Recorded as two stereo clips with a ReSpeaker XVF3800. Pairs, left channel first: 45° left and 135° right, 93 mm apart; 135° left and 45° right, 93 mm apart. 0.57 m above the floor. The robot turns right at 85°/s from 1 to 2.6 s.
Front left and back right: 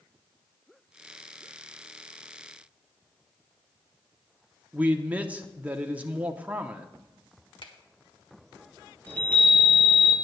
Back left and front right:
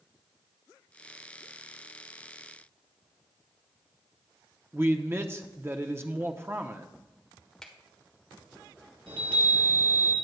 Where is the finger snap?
50° left, 1.4 m.